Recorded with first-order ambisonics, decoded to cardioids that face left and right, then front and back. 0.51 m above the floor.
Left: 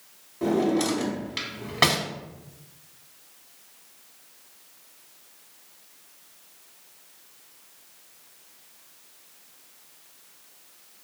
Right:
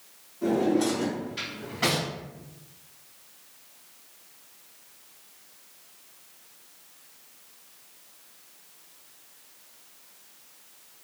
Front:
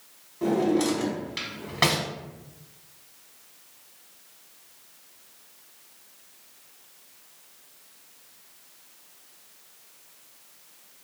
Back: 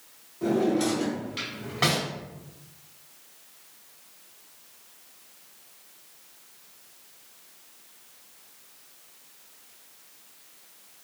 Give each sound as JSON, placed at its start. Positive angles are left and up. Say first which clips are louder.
{"t": 0.4, "sound": "a drawer", "louder": "left 1 dB, front 1 dB", "azimuth_deg": 70, "distance_m": 0.9}